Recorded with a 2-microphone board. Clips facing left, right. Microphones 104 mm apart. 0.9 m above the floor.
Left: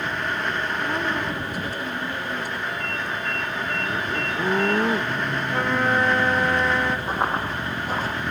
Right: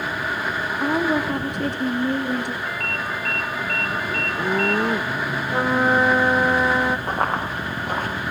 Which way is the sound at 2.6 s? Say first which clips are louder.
Right 1 dB; 60° right (ahead or behind).